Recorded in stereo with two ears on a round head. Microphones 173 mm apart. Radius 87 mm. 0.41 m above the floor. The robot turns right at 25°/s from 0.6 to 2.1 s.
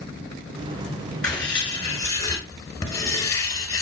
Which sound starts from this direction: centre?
Writing, at 1.2 s.